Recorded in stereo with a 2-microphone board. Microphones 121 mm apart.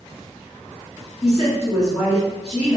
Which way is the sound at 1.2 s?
5° left (ahead or behind).